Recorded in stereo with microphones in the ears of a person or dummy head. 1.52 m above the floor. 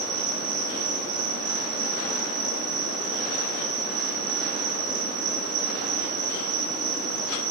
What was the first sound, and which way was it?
An insect, 65° right (ahead or behind).